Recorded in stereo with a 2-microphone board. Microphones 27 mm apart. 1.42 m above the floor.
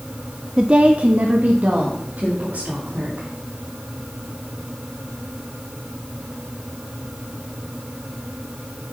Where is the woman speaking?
25° right (ahead or behind), 0.6 m; by 3.3 s 70° right (ahead or behind), 3.5 m.